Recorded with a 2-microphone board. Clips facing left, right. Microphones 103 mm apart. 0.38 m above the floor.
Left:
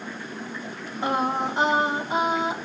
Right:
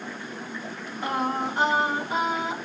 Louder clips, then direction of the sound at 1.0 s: Left 2 dB; 25° left (ahead or behind).